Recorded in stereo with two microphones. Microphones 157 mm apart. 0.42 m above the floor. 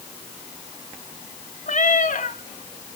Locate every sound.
1.7 s a cat meowing: 55° left (ahead or behind), 1.1 m